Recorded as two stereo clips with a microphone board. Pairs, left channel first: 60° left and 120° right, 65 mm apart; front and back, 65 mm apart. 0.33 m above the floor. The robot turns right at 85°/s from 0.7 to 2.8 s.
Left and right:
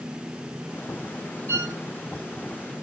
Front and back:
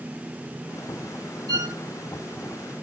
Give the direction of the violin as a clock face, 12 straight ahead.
6 o'clock.